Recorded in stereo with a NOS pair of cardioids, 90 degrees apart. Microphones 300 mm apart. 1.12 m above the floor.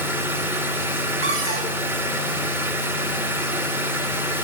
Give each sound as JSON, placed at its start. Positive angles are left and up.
{"t": 0.0, "sound": "a machine running", "azimuth_deg": -5, "distance_m": 0.8}
{"t": 1.2, "sound": "a cupboard door", "azimuth_deg": -45, "distance_m": 2.0}